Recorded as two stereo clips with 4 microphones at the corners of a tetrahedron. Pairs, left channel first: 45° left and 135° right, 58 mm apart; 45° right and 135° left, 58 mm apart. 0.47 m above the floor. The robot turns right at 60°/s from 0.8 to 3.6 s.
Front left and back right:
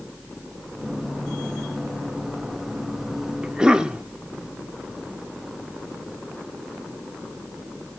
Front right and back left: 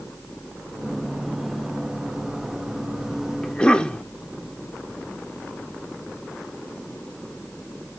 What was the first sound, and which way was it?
A cough, 95° right.